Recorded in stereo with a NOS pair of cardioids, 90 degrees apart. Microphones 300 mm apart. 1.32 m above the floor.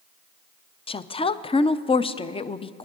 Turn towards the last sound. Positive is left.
turn(degrees=20)